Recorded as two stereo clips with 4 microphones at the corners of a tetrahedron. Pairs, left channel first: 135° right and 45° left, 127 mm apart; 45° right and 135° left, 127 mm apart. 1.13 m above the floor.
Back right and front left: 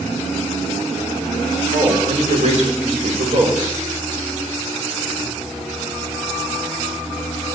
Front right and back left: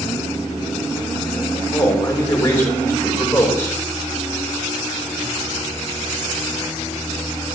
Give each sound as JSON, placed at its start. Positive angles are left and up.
{"t": 1.7, "sound": "a man speaking", "azimuth_deg": 25, "distance_m": 3.0}